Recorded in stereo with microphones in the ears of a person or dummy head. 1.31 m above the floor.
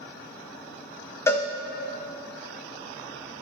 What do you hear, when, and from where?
1.3 s a cowbell: 10° left (ahead or behind), 0.5 m